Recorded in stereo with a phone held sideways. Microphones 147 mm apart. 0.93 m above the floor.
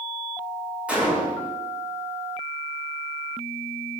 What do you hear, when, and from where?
0.9 s a gunshot: 10° right (ahead or behind), 4.5 m